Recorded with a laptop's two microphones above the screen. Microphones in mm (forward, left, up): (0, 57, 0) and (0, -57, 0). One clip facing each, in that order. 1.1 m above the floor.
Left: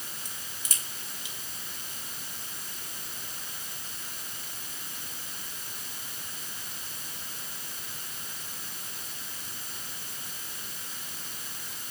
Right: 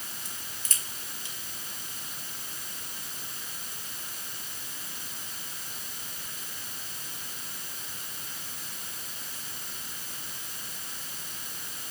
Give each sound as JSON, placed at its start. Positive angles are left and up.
{"t": 0.2, "sound": "a crack", "side_deg": 15, "distance_m": 1.3}